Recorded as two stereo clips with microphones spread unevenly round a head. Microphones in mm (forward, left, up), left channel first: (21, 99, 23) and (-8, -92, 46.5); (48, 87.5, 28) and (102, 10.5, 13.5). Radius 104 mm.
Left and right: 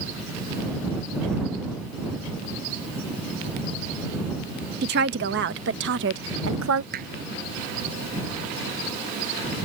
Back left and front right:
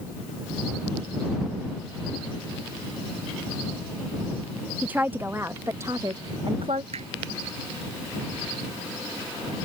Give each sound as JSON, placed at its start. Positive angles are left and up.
{"t": 4.8, "sound": "a woman speaking", "azimuth_deg": -140}
{"t": 6.9, "sound": "hammering", "azimuth_deg": -55}